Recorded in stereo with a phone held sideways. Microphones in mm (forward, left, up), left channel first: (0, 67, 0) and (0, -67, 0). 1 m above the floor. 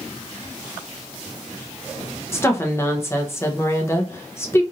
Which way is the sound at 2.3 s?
20° left (ahead or behind).